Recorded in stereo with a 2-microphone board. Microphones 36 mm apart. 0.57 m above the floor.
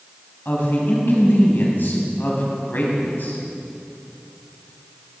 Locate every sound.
0.5 s a woman speaking: 60° left (ahead or behind), 4 m